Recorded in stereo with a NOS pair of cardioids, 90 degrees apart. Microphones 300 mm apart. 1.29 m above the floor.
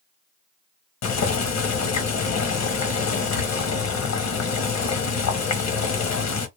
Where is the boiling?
65° left, 1.3 m.